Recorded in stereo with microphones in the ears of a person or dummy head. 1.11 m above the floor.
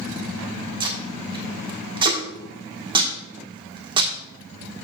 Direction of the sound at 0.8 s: 25° right (ahead or behind).